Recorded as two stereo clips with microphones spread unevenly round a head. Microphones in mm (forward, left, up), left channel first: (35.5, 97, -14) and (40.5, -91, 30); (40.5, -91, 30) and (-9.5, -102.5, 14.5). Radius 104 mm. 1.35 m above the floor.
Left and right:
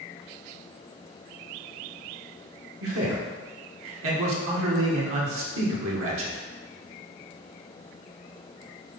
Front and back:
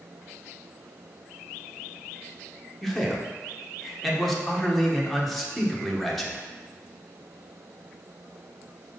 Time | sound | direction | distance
2.8 | a man speaking | 80° right | 1.7 m